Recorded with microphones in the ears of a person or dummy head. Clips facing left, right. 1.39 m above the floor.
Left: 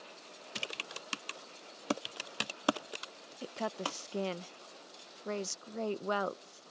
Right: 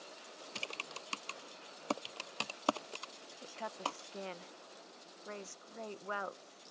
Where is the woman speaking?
60° left (ahead or behind).